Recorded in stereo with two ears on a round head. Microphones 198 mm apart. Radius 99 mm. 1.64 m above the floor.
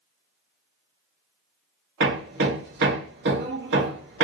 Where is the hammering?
50° right (ahead or behind), 1.4 m.